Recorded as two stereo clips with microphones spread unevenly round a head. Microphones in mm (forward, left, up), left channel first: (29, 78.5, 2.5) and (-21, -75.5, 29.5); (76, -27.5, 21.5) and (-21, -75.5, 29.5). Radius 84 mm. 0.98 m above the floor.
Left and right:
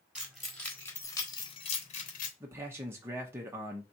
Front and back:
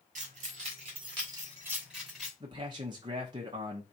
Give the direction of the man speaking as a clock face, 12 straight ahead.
6 o'clock.